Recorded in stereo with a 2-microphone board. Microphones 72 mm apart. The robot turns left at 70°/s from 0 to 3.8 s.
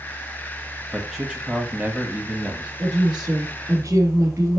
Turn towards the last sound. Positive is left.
turn(degrees=-135)